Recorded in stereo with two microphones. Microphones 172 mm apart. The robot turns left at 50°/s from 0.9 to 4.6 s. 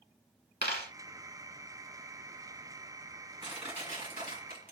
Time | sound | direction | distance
0.6 | a dropped coin | 70° left (ahead or behind) | 1.1 m
3.4 | crushing | 25° right (ahead or behind) | 1.9 m